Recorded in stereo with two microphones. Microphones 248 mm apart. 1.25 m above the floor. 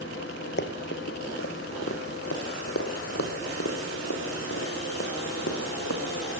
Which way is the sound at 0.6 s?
50° left (ahead or behind).